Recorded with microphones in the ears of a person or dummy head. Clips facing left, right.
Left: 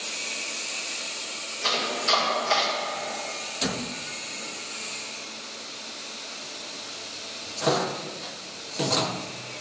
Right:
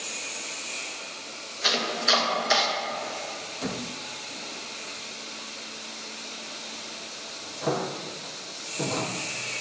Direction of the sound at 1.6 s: 15° right (ahead or behind).